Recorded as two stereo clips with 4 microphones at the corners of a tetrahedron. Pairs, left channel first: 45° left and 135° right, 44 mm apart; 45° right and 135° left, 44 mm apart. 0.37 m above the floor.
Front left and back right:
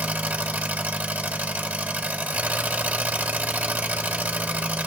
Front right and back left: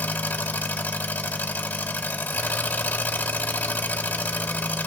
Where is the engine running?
85° right, 1.7 m.